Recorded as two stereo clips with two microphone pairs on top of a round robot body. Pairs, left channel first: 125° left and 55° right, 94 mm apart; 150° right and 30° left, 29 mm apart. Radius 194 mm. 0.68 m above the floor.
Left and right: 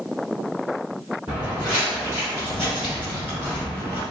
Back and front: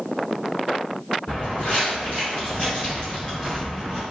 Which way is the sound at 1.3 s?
125° right.